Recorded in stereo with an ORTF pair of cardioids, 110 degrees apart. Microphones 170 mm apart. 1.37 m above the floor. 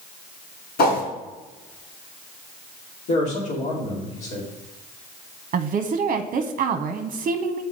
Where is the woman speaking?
45° right, 0.8 m.